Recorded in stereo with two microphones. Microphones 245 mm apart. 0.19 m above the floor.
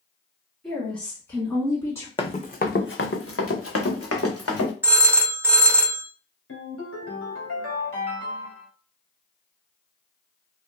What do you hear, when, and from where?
0.6 s a woman speaking: centre (ahead or behind), 1.8 m; by 2.1 s 10° left (ahead or behind), 2.5 m
2.2 s running footsteps: 20° left (ahead or behind), 0.5 m; by 4.7 s 80° left, 1.5 m
4.8 s a phone ringing: 10° right (ahead or behind), 0.6 m
6.5 s a ringtone: 65° left (ahead or behind), 1.5 m